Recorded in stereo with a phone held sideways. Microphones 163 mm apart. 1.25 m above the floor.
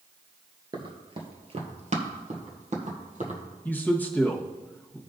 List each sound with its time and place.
0.7 s running footsteps: 30° right (ahead or behind), 1.3 m; by 3.4 s 50° right (ahead or behind), 2.5 m
3.6 s a man speaking: 10° left (ahead or behind), 1.2 m